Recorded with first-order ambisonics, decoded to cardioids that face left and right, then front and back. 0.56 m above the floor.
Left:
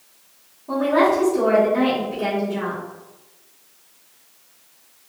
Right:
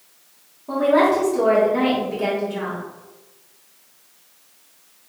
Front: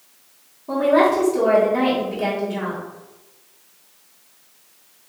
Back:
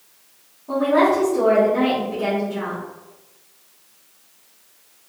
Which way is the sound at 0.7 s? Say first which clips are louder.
Right 1 dB, front 1 dB; 25° right.